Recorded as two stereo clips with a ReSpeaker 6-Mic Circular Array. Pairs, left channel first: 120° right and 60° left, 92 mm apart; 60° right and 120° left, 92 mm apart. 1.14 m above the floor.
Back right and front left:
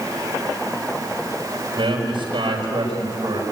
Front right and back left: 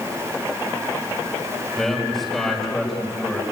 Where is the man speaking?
25° left, 5 m.